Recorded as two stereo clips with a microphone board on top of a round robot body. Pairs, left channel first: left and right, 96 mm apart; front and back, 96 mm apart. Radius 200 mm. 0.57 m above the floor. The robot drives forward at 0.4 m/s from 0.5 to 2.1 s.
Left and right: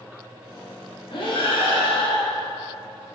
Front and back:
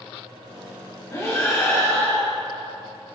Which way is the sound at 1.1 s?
60° left.